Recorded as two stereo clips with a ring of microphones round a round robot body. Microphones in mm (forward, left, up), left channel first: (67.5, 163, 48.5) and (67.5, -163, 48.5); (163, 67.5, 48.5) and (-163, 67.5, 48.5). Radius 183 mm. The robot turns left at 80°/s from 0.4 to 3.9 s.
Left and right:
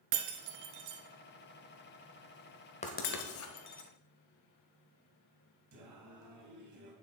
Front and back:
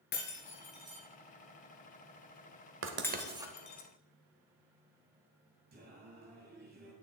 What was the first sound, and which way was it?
Breaking glass, 65° right.